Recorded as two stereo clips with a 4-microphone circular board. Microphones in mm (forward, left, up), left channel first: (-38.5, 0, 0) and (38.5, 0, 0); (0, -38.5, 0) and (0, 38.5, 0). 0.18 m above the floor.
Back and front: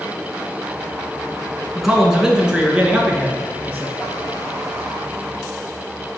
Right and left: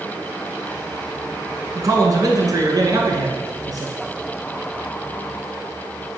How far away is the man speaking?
About 1.8 m.